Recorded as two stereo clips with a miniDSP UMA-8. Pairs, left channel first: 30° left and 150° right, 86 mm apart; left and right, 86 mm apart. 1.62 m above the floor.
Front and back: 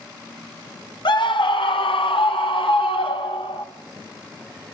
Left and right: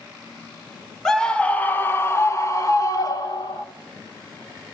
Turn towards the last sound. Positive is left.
turn(degrees=50)